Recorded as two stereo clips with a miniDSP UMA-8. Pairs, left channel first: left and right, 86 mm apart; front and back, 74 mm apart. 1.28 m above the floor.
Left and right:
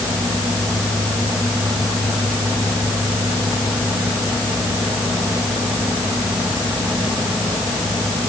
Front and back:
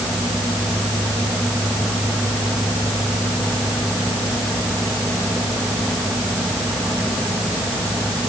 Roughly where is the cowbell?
I don't hear a cowbell.